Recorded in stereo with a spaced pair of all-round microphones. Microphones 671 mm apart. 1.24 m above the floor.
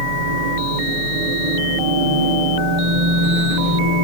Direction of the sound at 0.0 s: 80° right.